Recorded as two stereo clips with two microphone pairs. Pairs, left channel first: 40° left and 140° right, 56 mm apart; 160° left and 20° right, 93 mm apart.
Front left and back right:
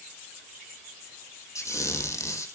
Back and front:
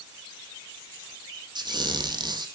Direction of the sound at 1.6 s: 20° left.